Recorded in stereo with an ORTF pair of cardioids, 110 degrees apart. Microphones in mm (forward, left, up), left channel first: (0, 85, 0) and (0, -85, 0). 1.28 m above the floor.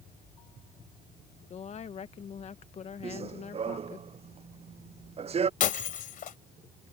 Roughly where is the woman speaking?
Ahead left.